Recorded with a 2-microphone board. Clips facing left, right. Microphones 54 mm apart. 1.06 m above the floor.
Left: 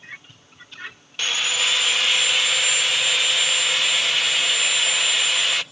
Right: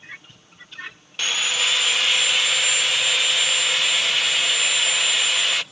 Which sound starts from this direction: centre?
Sawing, at 1.2 s.